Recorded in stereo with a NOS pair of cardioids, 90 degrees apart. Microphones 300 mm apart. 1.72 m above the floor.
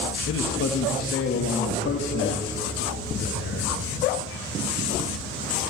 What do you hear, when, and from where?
0.3 s a man speaking: 50° left, 2 m; by 3.8 s 45° left, 5 m